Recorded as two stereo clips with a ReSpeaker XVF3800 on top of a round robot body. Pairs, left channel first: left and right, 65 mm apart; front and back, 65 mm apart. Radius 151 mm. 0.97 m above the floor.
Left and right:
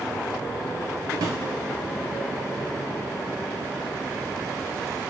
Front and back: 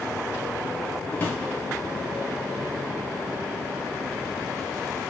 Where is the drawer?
65° right, 0.5 m.